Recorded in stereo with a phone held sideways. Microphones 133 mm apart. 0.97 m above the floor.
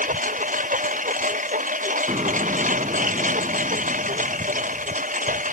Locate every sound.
0.0 s a lawn mower: 75° right (ahead or behind)
2.1 s an explosion: 45° right (ahead or behind)